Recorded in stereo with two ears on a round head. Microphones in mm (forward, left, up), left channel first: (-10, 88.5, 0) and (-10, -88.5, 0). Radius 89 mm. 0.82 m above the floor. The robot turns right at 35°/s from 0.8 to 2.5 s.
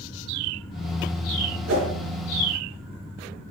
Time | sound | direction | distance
1.7 | a whoosh | 85° right | 4 m